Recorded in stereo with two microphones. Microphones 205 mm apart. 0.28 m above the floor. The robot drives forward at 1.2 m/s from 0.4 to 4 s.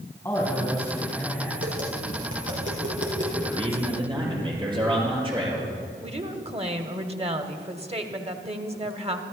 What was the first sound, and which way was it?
A man speaking, 15° left (ahead or behind).